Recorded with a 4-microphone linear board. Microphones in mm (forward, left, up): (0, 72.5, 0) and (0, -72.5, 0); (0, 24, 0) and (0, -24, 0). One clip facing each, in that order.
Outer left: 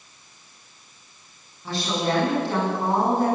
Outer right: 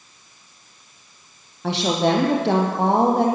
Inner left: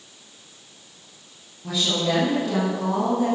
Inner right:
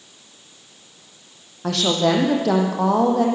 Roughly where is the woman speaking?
Right.